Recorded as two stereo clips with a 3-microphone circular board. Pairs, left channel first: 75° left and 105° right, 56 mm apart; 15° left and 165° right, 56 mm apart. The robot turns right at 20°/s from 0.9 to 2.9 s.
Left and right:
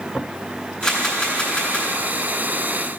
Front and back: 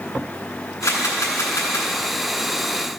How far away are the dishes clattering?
I don't hear dishes clattering.